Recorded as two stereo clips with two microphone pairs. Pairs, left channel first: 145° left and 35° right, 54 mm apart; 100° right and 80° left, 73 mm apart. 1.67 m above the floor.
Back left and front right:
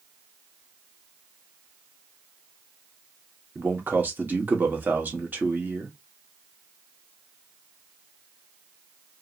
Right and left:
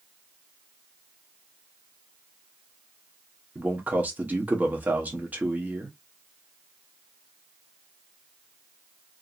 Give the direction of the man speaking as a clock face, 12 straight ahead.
12 o'clock.